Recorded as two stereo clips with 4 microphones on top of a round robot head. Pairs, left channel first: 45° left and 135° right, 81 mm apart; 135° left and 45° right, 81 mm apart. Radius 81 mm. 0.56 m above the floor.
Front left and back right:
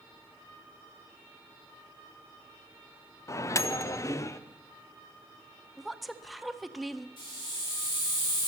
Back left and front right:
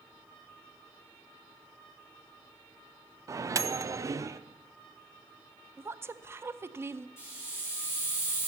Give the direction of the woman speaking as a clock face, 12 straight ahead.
2 o'clock.